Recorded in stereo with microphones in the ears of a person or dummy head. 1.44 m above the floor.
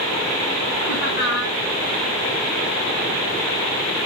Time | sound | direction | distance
0.9 | laughter | 50° left (ahead or behind) | 4 m